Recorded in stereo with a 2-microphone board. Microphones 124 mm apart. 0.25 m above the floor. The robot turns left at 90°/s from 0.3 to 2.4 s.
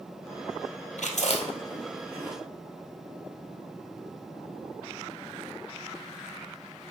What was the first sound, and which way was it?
Chewing, 85° left.